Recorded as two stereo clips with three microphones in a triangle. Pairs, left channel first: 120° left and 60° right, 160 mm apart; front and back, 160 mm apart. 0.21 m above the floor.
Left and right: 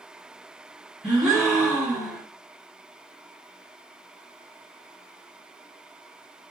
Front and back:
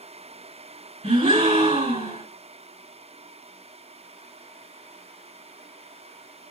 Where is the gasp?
150° right, 2 m.